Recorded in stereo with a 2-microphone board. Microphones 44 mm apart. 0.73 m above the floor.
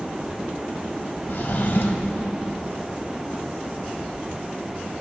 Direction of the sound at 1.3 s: 60° left (ahead or behind).